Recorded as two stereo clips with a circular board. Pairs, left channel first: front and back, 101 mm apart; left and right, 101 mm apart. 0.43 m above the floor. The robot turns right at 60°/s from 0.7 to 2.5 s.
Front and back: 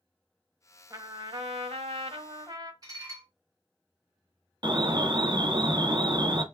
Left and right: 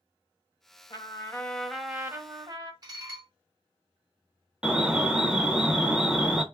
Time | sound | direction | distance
0.9 | a trumpet | 130° left | 0.7 m
2.8 | dishes clattering | 135° right | 1.4 m
4.6 | an alarm | 165° right | 0.6 m